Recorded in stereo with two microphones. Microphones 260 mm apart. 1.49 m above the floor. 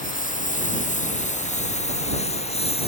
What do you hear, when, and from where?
0.0 s a lawn mower: 30° left (ahead or behind); by 2.9 s 20° left (ahead or behind)